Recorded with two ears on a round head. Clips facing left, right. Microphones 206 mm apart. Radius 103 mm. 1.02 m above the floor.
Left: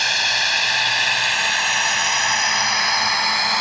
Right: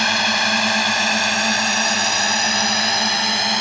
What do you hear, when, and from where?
0.0 s a drone: 55° right (ahead or behind); by 3.6 s 25° right (ahead or behind)